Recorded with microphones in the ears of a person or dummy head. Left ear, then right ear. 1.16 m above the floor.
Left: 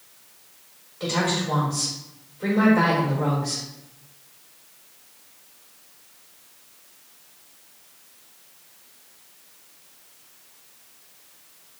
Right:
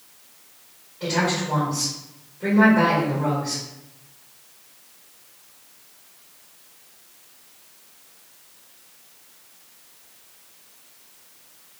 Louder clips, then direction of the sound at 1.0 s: Right 1 dB; 55° left (ahead or behind).